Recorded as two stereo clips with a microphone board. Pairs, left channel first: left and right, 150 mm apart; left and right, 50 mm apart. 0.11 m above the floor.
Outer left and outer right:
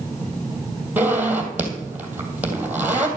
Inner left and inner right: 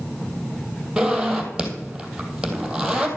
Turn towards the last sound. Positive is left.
turn(degrees=-10)  # may be behind; listen again after turning